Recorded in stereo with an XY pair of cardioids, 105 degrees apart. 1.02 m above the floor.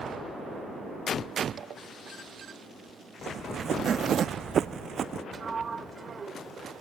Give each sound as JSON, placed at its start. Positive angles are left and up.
{"t": 1.6, "sound": "a zipper", "azimuth_deg": -55}
{"t": 3.3, "sound": "running footsteps", "azimuth_deg": -55}
{"t": 5.3, "sound": "a sliding door", "azimuth_deg": -35}